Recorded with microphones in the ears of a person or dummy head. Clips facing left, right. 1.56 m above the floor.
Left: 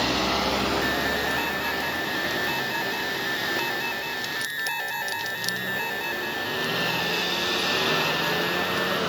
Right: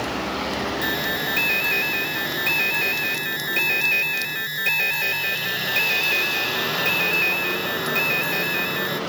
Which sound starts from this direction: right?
An alarm, at 0.8 s.